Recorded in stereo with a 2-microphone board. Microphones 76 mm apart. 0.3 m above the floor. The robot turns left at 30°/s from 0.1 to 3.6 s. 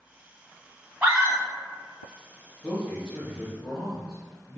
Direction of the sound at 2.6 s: Centre (ahead or behind).